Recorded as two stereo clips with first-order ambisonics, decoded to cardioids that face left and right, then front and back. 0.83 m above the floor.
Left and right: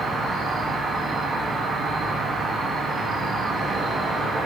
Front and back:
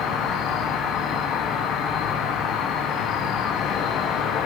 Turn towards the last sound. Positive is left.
turn(degrees=-25)